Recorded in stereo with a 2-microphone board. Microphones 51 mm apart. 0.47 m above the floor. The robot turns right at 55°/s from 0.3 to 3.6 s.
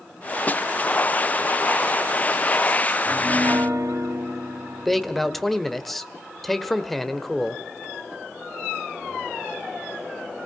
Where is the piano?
145° right, 3 m; by 5.4 s 115° right, 3 m.